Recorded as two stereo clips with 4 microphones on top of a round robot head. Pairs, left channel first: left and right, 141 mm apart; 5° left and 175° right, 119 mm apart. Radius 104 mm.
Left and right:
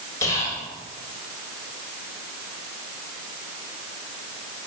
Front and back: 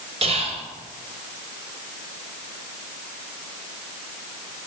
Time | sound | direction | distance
0.2 | whispering | 160° left | 2 m